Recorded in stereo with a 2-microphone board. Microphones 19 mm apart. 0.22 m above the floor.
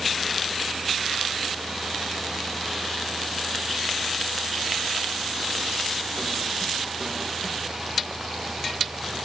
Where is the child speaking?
No child speaking in this recording.